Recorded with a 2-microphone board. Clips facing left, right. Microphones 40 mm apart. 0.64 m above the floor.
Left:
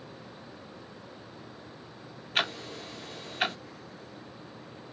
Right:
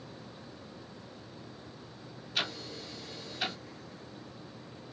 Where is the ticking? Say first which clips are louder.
Left 5 dB; 45° left (ahead or behind), 0.6 m.